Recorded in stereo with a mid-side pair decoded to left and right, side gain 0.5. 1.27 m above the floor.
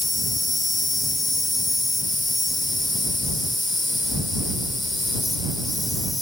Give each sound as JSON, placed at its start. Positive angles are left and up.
{"t": 0.0, "sound": "an insect", "azimuth_deg": 15}